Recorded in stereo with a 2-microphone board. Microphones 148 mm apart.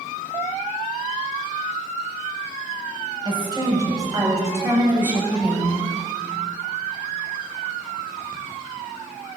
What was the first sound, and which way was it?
A woman speaking, 30° right (ahead or behind).